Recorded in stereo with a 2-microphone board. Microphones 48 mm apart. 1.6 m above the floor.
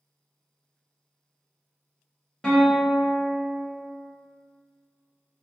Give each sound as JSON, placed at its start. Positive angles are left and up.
{"t": 2.4, "sound": "a guitar", "side_deg": 15, "distance_m": 0.9}